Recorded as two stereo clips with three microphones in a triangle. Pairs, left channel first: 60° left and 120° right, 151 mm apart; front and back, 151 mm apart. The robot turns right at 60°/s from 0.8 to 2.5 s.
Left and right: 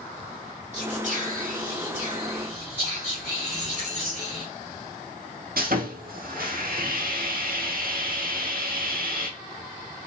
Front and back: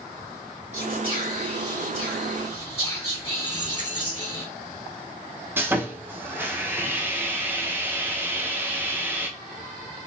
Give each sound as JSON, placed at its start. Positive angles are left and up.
{"t": 0.7, "sound": "whispering", "azimuth_deg": -150, "distance_m": 1.9}
{"t": 3.5, "sound": "a dropped coin", "azimuth_deg": -150, "distance_m": 3.0}
{"t": 5.6, "sound": "sawing", "azimuth_deg": -105, "distance_m": 1.0}